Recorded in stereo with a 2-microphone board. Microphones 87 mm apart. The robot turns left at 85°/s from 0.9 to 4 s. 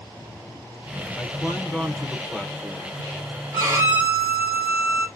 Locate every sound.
1.2 s a man speaking: 20° left (ahead or behind), 0.8 m; by 3.0 s 15° right (ahead or behind), 0.8 m
3.5 s a violin: 115° right, 2.5 m; by 5.1 s 155° right, 2.5 m